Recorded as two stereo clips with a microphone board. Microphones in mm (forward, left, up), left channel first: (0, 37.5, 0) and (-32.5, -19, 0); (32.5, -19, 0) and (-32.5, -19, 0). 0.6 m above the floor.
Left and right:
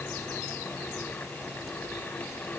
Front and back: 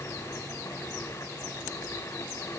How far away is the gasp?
No gasp in this recording.